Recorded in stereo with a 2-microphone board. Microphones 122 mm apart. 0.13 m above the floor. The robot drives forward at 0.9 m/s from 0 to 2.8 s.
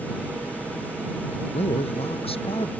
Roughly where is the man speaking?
Left.